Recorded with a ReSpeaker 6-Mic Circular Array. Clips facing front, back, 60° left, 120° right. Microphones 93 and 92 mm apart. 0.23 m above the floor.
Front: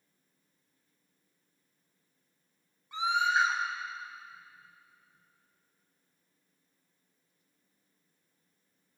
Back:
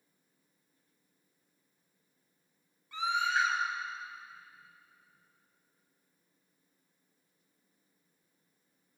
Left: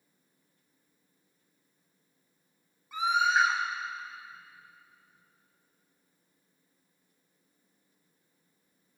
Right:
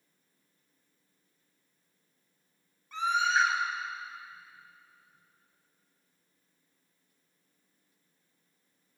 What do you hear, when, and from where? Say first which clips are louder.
2.9 s a scream: front 3 dB, left 2 dB; 5° right, 1.2 m